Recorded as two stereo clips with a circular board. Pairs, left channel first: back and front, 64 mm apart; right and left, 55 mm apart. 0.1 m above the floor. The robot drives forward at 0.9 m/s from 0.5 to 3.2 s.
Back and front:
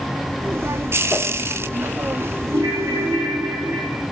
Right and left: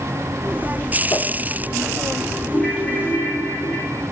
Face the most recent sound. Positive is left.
turn(degrees=-20)